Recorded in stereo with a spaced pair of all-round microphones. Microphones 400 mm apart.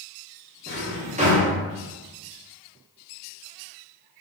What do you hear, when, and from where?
0.7 s a drawer: 15° right (ahead or behind), 0.8 m